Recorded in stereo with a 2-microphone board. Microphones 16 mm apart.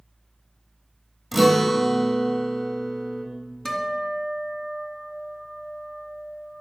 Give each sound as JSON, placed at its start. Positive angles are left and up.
{"t": 1.3, "sound": "a guitar", "side_deg": 5, "distance_m": 1.5}
{"t": 3.6, "sound": "a guitar", "side_deg": 35, "distance_m": 1.4}